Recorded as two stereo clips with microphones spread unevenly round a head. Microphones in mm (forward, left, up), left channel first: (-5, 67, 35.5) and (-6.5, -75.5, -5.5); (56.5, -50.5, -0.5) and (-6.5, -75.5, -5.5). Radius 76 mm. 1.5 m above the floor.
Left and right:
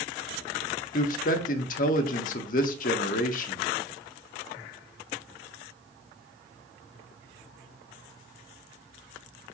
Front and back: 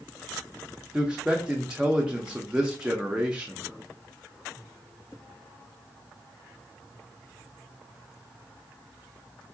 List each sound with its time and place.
0.9 s a man speaking: 115° left, 0.6 m